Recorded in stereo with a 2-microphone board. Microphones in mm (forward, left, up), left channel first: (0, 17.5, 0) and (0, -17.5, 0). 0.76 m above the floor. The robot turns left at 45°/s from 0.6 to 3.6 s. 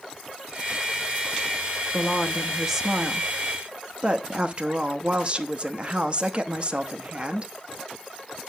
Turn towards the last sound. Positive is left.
turn(degrees=-55)